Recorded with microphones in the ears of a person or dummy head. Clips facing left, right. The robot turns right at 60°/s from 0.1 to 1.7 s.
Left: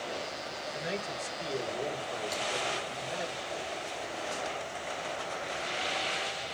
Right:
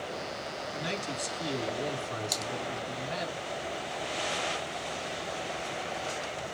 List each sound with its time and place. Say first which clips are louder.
0.7 s a man speaking: even; 105° right, 4.5 m; by 3.3 s 50° right, 4.5 m
2.3 s typing on a keyboard: left 1 dB; 45° right (ahead or behind), 1.1 m